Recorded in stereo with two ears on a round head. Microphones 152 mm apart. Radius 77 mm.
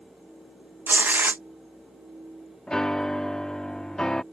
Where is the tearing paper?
10° right (ahead or behind).